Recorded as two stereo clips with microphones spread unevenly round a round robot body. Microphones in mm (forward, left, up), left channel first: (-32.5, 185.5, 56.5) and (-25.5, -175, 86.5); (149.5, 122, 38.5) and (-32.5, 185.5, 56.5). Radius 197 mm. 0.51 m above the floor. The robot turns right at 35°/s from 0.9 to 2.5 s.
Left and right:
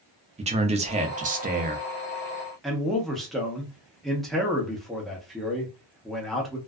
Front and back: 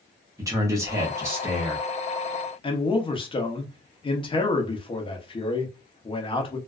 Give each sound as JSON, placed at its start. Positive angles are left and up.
{"t": 0.4, "sound": "a man speaking", "azimuth_deg": -140, "distance_m": 0.7}
{"t": 2.6, "sound": "a man speaking", "azimuth_deg": 10, "distance_m": 0.8}